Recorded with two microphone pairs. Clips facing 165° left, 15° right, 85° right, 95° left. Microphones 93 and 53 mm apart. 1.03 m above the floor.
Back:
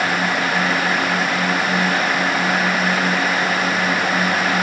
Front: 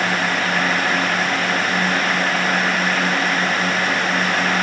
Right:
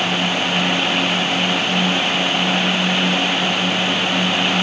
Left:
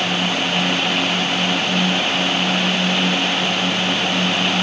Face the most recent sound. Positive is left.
No sound to turn to.